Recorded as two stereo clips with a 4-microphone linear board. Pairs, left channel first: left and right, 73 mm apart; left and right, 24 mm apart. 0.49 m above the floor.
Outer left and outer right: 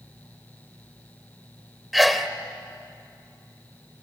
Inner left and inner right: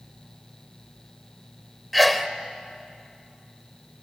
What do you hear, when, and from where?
1.9 s a sneeze: centre (ahead or behind), 1.6 m